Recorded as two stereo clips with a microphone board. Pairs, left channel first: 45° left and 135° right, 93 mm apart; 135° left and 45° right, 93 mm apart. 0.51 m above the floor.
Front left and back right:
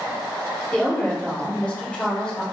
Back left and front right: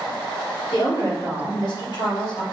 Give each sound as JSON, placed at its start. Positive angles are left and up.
{"t": 0.7, "sound": "a woman speaking", "azimuth_deg": 120, "distance_m": 1.5}